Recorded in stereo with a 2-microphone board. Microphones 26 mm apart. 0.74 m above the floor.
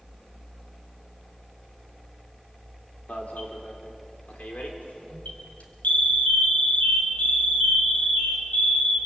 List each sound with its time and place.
3.1 s an alarm: 65° left (ahead or behind), 3.5 m